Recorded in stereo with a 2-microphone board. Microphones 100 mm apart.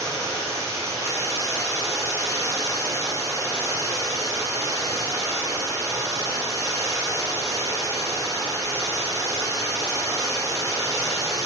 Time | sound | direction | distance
0.0 | running water | 30° right (ahead or behind) | 4 m